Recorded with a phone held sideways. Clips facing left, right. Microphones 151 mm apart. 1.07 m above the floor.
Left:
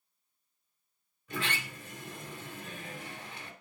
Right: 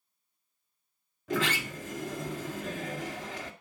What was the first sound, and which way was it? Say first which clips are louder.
A sliding door: right 7 dB; 90° right.